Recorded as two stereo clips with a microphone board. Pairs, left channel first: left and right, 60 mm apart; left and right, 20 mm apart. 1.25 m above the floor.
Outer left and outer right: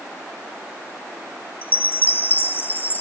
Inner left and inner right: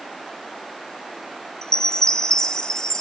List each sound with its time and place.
1.6 s a chime: 35° left (ahead or behind), 0.6 m